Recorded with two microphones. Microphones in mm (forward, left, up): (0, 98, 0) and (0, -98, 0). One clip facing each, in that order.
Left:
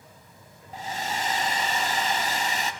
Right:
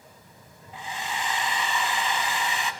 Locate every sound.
0.7 s a hair dryer: 40° left (ahead or behind), 0.8 m